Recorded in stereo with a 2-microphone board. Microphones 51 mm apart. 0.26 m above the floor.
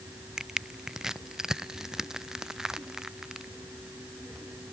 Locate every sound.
0.4 s crushing: 10° right (ahead or behind)